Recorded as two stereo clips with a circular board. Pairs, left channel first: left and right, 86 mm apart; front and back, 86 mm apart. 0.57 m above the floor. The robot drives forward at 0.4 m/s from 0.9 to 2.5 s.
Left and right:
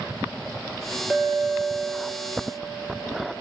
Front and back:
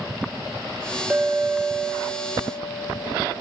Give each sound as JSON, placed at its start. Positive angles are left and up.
{"t": 1.1, "sound": "a clink", "azimuth_deg": -140, "distance_m": 0.5}